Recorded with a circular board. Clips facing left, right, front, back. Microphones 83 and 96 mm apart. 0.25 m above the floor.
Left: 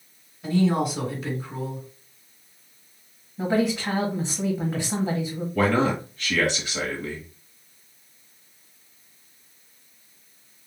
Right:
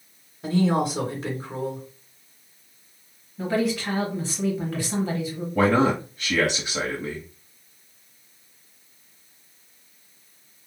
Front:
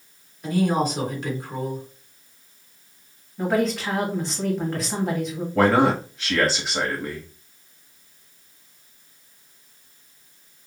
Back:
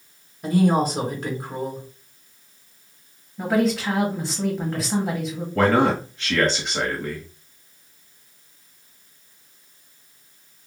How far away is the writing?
I don't hear writing.